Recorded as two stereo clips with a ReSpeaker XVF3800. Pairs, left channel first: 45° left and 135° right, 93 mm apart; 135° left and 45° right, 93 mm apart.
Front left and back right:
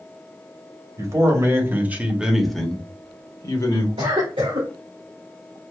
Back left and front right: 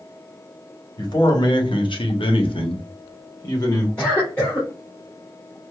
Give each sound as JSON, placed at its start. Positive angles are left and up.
{"t": 1.0, "sound": "a man speaking", "azimuth_deg": 175, "distance_m": 1.2}
{"t": 4.0, "sound": "a cough", "azimuth_deg": -150, "distance_m": 2.0}